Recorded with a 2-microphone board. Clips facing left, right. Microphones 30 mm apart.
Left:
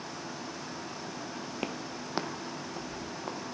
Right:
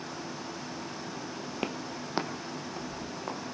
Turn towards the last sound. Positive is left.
turn(degrees=-5)  # may be behind; listen again after turning